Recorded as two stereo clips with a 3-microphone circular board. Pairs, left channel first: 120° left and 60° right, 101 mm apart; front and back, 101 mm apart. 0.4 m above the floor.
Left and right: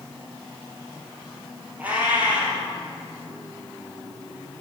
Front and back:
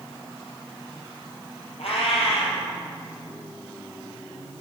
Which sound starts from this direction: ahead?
A cat meowing, at 1.8 s.